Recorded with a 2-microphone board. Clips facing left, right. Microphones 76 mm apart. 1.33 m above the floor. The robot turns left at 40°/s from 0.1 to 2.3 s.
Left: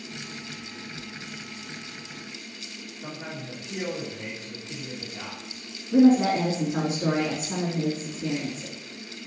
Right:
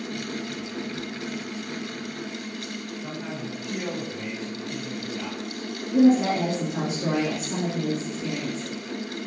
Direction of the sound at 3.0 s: Centre (ahead or behind).